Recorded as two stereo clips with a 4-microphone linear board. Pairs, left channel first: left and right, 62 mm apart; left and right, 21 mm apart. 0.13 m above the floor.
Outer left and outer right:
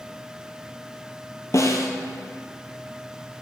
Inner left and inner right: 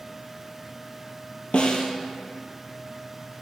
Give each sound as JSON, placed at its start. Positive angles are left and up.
{"t": 1.5, "sound": "a snare drum", "side_deg": 55, "distance_m": 0.9}